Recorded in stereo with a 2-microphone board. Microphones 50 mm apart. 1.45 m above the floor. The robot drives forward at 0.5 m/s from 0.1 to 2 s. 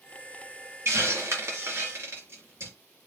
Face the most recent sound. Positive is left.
turn(degrees=-50)  # may be behind; listen again after turning